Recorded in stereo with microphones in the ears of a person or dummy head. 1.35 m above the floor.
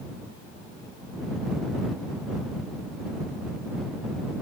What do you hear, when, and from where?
Only background noise.